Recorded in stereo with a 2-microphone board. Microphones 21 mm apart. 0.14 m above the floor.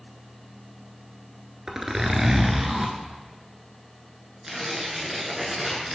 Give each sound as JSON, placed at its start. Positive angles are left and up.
{"t": 1.7, "sound": "a zipper", "side_deg": -20, "distance_m": 1.0}
{"t": 4.4, "sound": "tearing paper", "side_deg": -15, "distance_m": 1.5}